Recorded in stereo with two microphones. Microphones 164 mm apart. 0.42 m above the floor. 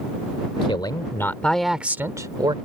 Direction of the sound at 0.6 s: 35° left (ahead or behind).